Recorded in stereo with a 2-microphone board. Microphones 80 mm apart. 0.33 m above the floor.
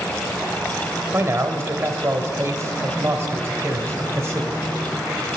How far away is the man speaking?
About 1.3 m.